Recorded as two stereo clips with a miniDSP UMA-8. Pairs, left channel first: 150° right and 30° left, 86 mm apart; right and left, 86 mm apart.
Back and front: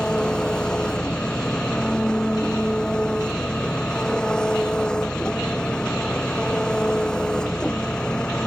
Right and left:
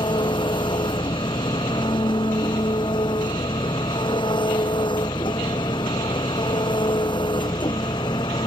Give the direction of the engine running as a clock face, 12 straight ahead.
2 o'clock.